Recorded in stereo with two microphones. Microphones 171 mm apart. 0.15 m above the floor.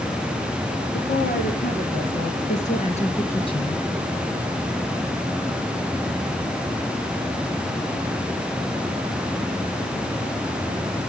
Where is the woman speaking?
60° left (ahead or behind), 3 m; by 3.8 s 25° left (ahead or behind), 2.0 m.